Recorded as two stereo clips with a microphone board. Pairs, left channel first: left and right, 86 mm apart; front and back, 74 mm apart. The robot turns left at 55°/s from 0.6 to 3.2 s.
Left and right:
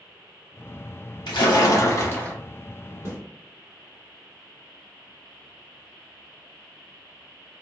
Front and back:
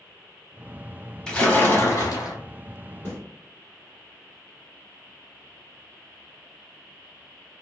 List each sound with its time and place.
1.3 s a splash: 80° left, 0.8 m; by 2.4 s 20° left, 0.8 m
3.0 s a snare drum: 40° right, 2.0 m; by 3.2 s 50° right, 2.0 m